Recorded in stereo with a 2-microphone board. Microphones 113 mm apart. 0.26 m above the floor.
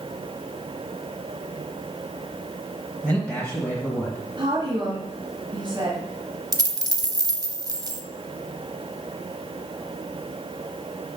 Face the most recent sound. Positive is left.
turn(degrees=-35)  # may be behind; listen again after turning